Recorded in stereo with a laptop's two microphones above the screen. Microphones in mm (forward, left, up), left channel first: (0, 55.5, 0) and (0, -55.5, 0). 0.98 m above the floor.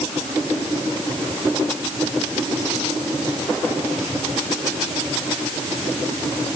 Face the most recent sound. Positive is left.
No sound to turn to.